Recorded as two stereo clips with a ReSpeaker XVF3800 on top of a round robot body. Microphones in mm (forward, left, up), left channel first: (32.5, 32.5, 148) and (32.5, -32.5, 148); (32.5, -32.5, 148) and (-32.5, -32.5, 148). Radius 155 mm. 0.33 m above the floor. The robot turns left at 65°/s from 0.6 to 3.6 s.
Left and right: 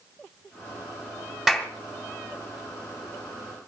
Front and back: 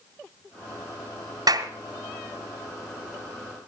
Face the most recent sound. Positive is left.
turn(degrees=50)